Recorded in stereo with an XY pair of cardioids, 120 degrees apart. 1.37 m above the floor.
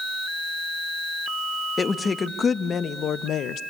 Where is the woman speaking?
30° left, 1.8 m; by 3.6 s 70° left, 0.9 m.